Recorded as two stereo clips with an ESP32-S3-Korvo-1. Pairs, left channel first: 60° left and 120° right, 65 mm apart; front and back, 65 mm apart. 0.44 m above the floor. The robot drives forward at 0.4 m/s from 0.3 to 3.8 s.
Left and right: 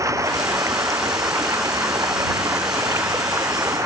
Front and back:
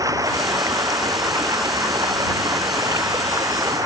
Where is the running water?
155° right.